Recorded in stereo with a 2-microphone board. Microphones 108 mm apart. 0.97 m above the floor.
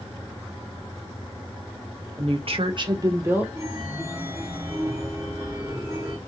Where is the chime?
20° right (ahead or behind), 1.5 m.